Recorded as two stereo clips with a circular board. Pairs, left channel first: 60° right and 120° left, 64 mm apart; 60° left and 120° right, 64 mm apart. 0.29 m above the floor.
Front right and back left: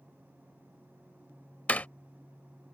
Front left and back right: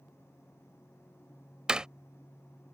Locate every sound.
1.7 s a door slam: 70° right